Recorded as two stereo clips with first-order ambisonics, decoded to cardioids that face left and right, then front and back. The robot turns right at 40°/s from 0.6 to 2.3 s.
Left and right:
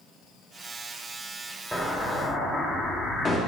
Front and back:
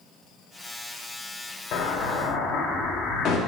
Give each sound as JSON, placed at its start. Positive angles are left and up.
{"t": 1.7, "sound": "an explosion", "azimuth_deg": 5, "distance_m": 1.2}